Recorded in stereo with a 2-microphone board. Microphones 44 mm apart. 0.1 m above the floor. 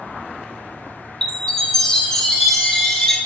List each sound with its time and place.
1.2 s a chime: 15° left (ahead or behind), 0.6 m